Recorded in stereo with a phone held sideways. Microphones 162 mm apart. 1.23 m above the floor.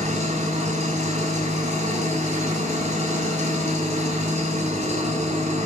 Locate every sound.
0.0 s an engine running: 55° right (ahead or behind), 6 m